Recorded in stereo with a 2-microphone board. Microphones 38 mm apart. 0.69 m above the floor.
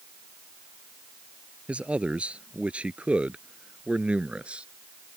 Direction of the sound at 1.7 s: 30° right (ahead or behind).